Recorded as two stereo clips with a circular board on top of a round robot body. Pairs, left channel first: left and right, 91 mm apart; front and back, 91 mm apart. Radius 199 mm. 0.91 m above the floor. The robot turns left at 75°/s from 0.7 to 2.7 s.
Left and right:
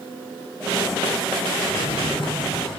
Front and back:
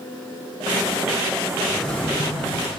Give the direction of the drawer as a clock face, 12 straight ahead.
9 o'clock.